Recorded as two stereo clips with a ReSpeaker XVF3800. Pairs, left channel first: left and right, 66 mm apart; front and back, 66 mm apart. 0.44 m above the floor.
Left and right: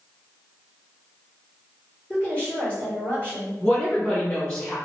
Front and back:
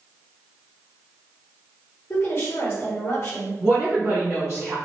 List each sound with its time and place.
2.1 s a woman speaking: 30° left, 1.7 m
3.6 s a woman speaking: 140° left, 1.5 m